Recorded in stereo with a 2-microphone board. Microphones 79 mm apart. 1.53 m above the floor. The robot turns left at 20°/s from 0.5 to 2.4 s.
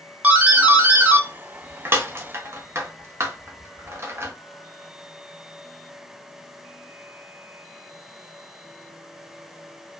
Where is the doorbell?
20° right (ahead or behind), 0.6 m; by 4.3 s 30° right (ahead or behind), 0.6 m.